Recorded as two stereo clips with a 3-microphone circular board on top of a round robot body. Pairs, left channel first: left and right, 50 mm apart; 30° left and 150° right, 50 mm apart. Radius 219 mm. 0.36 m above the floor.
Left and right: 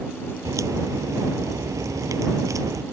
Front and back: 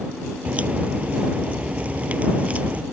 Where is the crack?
85° right.